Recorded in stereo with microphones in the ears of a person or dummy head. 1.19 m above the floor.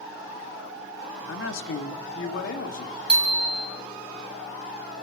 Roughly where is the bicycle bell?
Centre.